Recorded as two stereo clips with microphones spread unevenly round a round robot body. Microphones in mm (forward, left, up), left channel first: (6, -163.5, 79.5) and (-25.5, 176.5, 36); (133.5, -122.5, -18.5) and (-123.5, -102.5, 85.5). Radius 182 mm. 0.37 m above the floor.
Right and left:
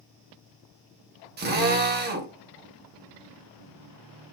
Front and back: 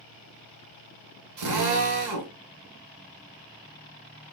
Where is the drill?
150° left, 1.6 m.